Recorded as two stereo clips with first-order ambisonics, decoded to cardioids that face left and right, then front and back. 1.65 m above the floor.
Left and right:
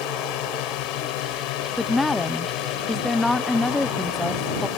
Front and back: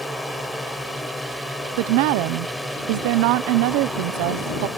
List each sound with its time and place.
0.0 s a drone: 90° left
1.8 s a woman speaking: 170° left